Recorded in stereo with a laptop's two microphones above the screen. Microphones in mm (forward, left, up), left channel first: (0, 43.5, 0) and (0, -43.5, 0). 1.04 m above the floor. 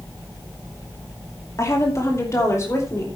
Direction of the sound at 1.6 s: 40° left (ahead or behind).